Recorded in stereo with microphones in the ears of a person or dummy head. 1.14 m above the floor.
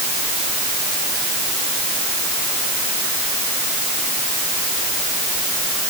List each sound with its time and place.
Only background noise.